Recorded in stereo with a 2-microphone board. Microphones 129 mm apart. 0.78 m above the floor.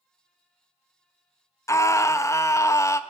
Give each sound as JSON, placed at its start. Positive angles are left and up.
{"t": 1.7, "sound": "a scream", "side_deg": 25, "distance_m": 0.5}